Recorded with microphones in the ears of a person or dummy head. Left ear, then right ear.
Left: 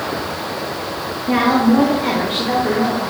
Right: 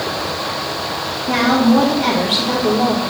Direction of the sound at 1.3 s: 15° left (ahead or behind).